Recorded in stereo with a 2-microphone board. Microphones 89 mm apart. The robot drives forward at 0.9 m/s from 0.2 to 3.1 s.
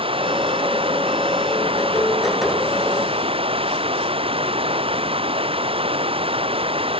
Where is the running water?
70° right (ahead or behind); by 7.0 s 75° right (ahead or behind).